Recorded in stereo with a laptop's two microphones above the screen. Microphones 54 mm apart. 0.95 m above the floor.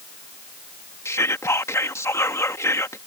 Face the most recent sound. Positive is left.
turn(degrees=60)  # may be behind; listen again after turning